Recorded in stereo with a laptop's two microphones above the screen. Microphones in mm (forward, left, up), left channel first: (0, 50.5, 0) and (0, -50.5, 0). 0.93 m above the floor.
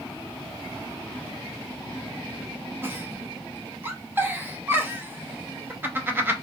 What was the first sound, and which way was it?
A giggle, 20° right (ahead or behind).